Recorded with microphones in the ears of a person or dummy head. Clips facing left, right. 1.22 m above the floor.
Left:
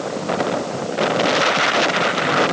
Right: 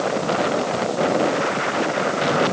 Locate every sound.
Only background noise.